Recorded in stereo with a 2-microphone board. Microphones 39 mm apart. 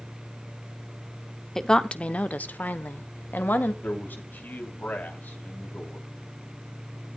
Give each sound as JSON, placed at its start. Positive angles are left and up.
{"t": 1.6, "sound": "a woman speaking", "side_deg": 10, "distance_m": 0.7}
{"t": 3.8, "sound": "a man speaking", "side_deg": 50, "distance_m": 3.0}